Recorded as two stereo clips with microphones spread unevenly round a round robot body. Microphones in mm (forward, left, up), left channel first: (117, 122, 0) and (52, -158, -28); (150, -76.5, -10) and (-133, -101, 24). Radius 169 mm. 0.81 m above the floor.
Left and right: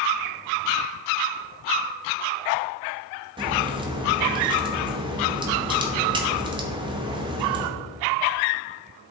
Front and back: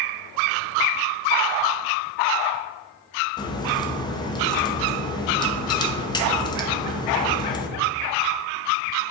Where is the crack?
50° right, 1.0 m.